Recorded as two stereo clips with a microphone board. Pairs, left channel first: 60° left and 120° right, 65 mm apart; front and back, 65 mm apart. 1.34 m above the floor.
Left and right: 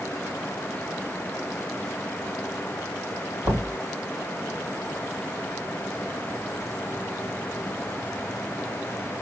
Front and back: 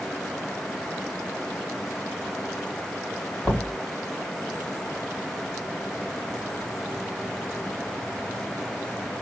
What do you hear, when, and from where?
3.4 s knocking: 100° right, 1.7 m